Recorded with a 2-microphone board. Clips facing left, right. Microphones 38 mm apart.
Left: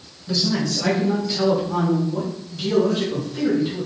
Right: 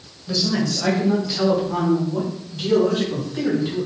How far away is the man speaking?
About 2.5 m.